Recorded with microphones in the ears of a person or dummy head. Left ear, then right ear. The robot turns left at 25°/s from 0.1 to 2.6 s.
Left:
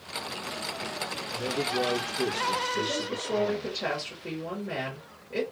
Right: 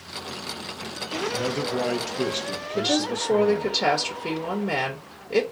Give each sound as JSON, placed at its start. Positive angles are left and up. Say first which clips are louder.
{"t": 1.3, "sound": "a man speaking", "louder": "even", "azimuth_deg": -100, "distance_m": 1.0}
{"t": 2.8, "sound": "a woman speaking", "louder": "right 6 dB", "side_deg": -85, "distance_m": 1.1}